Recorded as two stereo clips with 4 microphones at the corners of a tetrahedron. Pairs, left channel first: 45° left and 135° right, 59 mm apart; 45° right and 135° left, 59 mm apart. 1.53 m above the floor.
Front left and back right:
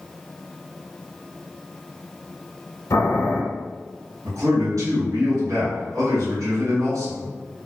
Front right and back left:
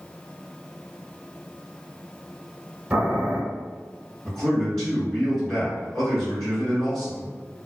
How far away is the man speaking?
About 1.5 m.